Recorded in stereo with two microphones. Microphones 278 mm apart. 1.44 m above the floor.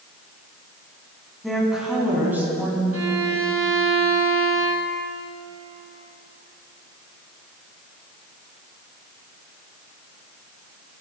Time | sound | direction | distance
1.4 | a woman speaking | centre (ahead or behind) | 10 m
2.9 | a violin | 70° right (ahead or behind) | 4 m